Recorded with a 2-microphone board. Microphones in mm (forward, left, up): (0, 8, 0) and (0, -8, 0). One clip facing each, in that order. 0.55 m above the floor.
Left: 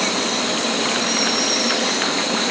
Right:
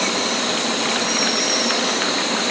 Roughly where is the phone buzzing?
I don't hear a phone buzzing.